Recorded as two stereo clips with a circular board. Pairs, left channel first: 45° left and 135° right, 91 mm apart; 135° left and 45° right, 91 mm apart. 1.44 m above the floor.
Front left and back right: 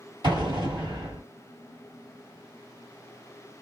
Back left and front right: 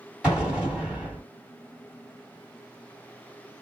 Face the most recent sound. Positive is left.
turn(degrees=-125)